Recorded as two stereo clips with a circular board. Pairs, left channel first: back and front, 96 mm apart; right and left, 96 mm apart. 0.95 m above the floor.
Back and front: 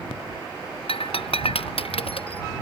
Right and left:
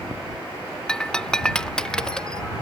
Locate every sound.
0.9 s breaking glass: 170° right